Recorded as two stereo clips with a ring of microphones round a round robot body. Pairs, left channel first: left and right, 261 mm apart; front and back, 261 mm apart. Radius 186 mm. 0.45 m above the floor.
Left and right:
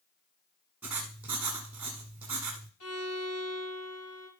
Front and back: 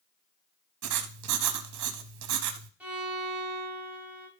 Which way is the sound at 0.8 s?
175° right.